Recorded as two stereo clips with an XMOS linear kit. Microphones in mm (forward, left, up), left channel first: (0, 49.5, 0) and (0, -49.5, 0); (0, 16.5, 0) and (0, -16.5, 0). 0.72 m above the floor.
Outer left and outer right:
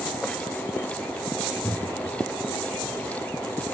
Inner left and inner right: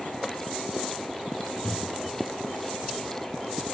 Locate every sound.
1.6 s a cupboard door: 15° left (ahead or behind), 1.3 m